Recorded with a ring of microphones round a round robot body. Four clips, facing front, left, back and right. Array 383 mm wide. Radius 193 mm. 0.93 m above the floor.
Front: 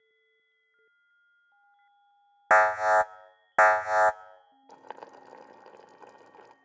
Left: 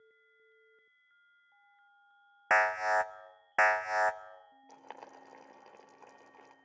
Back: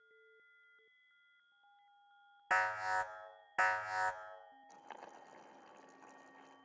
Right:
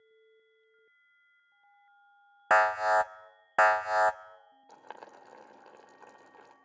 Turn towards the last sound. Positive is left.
turn(degrees=-10)